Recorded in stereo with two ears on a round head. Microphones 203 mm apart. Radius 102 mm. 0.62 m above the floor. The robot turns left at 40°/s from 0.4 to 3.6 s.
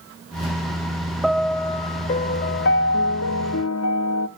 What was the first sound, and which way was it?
A piano, straight behind.